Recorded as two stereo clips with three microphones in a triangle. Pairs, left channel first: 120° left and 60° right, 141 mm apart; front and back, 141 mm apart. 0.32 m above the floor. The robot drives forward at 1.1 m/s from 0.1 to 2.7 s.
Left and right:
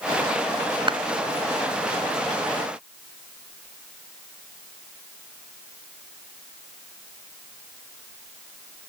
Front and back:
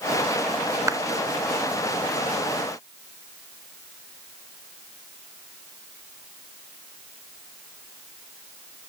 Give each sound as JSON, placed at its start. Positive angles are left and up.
{"t": 0.9, "sound": "a clap", "azimuth_deg": -115}